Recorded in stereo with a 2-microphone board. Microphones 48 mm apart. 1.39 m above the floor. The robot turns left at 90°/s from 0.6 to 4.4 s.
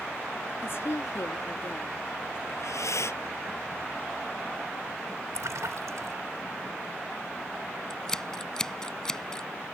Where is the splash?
80° right.